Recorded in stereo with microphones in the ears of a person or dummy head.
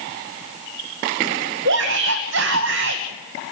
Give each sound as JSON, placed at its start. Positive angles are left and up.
{"t": 1.6, "sound": "a shout", "side_deg": -70, "distance_m": 1.7}